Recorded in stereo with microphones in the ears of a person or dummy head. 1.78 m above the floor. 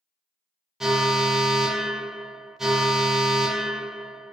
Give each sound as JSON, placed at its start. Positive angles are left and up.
{"t": 0.8, "sound": "an alarm", "side_deg": -5, "distance_m": 0.7}